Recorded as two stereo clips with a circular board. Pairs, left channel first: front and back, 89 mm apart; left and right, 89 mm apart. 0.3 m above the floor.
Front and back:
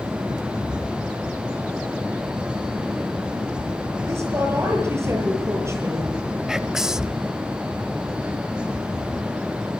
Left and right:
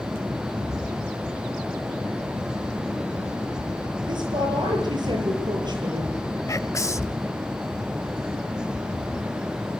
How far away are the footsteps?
I don't hear footsteps.